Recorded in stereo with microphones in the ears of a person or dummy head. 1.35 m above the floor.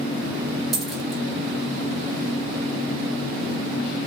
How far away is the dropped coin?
About 1.2 m.